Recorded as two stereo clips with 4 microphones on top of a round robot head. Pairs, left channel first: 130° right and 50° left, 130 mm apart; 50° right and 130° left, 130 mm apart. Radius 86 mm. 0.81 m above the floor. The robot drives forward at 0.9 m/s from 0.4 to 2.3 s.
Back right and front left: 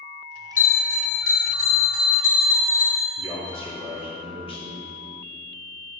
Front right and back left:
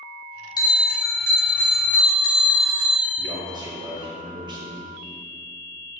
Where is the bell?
110° right, 2.5 m; by 3.1 s 135° right, 3.5 m.